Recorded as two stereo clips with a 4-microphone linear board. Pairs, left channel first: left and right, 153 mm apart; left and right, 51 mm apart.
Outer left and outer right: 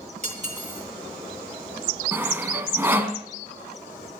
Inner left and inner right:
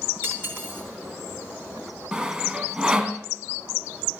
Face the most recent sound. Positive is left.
turn(degrees=-15)  # may be behind; listen again after turning